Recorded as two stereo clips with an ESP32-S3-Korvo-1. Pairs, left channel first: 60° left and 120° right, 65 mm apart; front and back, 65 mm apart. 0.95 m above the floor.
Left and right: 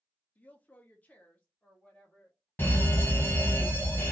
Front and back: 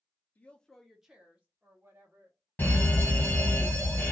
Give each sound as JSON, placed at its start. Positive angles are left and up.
{"t": 0.3, "sound": "a woman speaking", "azimuth_deg": 25, "distance_m": 0.7}
{"t": 2.6, "sound": "a fire alarm", "azimuth_deg": 35, "distance_m": 1.8}